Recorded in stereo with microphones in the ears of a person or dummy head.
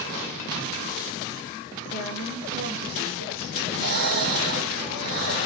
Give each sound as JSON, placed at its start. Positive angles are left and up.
{"t": 1.9, "sound": "a woman speaking", "side_deg": -80, "distance_m": 3.0}
{"t": 3.5, "sound": "breathing", "side_deg": -50, "distance_m": 3.0}